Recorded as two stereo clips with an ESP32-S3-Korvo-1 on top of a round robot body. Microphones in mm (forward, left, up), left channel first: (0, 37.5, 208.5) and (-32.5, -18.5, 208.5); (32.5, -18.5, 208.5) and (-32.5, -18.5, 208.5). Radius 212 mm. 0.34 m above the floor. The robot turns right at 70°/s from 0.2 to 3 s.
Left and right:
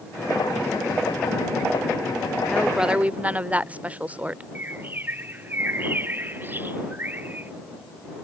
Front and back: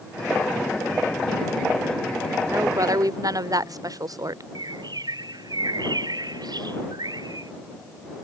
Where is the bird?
Straight behind.